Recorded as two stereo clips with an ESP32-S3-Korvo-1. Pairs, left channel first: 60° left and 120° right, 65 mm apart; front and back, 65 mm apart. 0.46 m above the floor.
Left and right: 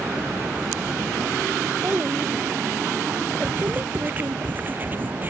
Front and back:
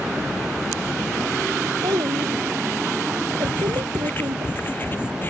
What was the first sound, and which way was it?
A child speaking, straight behind.